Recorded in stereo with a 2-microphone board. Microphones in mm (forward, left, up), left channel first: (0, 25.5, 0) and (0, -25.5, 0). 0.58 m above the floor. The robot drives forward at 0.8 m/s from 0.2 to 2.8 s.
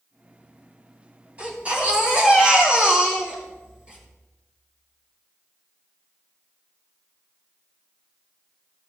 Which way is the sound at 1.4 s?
30° right (ahead or behind).